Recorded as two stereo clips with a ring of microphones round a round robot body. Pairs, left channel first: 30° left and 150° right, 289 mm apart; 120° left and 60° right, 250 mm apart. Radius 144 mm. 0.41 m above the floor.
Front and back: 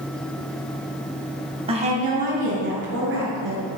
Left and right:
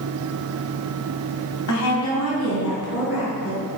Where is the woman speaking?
140° left, 2.5 m; by 3.6 s 160° left, 5 m.